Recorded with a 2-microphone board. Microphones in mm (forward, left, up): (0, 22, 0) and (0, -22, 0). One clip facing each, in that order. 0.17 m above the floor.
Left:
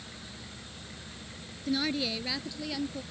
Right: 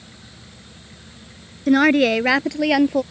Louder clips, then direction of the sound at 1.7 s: Right 16 dB; 60° right (ahead or behind).